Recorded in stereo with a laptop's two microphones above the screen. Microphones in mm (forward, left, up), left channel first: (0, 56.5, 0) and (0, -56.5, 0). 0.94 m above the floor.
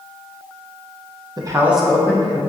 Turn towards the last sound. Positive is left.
turn(degrees=30)  # may be behind; listen again after turning